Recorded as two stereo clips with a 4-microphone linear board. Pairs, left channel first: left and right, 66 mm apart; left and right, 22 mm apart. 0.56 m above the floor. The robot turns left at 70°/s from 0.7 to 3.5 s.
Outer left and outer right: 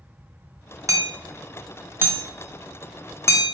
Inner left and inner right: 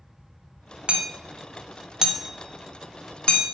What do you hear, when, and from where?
0.9 s hammering: 45° right (ahead or behind), 0.5 m; by 3.5 s 50° left (ahead or behind), 0.5 m